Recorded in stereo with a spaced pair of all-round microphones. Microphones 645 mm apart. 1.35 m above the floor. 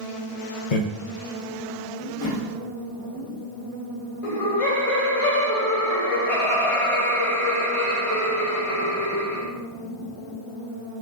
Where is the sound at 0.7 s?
85° left, 0.6 m.